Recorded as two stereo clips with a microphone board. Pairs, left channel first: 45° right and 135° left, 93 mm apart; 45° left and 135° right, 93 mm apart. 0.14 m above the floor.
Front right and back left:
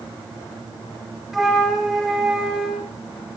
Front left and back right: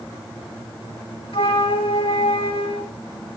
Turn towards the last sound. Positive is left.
turn(degrees=50)